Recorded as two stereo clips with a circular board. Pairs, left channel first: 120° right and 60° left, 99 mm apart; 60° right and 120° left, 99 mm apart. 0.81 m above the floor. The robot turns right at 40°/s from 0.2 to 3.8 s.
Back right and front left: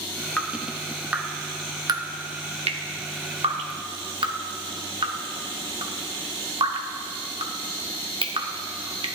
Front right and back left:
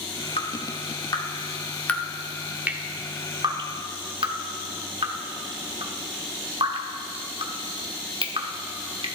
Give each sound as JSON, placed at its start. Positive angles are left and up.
{"t": 0.4, "sound": "dripping", "azimuth_deg": -45, "distance_m": 0.9}